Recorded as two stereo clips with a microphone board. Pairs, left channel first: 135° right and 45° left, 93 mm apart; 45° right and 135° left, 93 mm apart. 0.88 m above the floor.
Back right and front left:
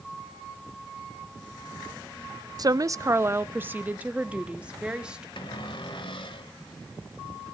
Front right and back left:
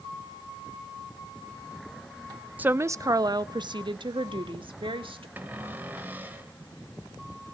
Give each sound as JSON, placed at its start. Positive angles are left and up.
{"t": 2.6, "sound": "a woman speaking", "azimuth_deg": 70, "distance_m": 0.5}
{"t": 5.4, "sound": "a cupboard door", "azimuth_deg": -155, "distance_m": 1.5}